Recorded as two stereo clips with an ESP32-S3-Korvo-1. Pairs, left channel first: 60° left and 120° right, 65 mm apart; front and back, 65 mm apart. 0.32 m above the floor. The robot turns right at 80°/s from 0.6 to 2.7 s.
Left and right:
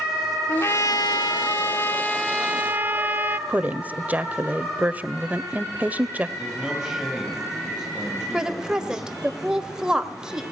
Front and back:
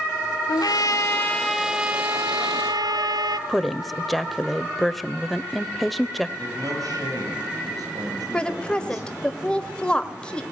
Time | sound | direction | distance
0.5 | a trumpet | 10° left | 1.2 m
3.5 | a woman speaking | 85° right | 0.9 m
6.4 | a man speaking | 155° left | 9 m
8.3 | a woman speaking | 55° right | 1.4 m